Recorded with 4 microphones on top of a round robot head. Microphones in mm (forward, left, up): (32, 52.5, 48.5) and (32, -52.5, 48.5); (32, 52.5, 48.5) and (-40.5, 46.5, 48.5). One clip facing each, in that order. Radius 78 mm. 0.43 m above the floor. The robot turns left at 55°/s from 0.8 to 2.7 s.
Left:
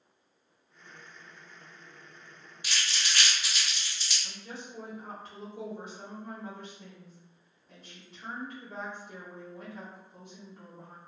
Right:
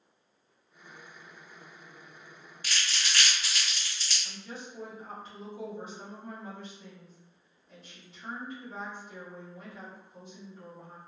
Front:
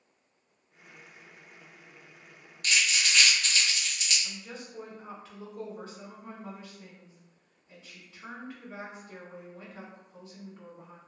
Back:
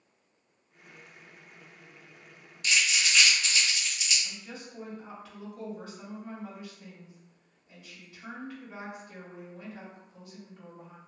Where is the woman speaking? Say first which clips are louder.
Even, front 1 dB; 65° left, 1.5 m.